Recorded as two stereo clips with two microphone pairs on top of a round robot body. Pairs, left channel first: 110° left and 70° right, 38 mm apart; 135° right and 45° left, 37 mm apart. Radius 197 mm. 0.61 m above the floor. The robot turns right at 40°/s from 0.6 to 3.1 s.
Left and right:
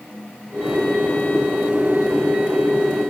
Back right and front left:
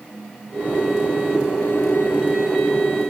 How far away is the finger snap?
I don't hear a finger snap.